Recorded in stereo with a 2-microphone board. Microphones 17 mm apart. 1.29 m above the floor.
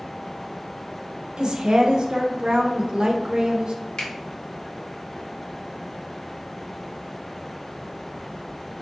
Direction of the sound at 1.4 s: 60° right (ahead or behind).